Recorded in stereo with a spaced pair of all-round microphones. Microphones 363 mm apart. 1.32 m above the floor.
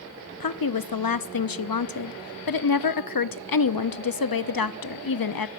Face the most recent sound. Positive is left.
turn(degrees=70)  # may be behind; listen again after turning